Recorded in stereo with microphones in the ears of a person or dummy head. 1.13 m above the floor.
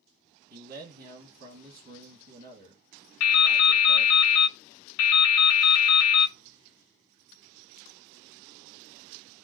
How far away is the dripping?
About 0.6 m.